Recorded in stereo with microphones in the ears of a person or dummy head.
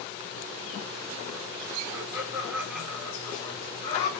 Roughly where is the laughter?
Centre.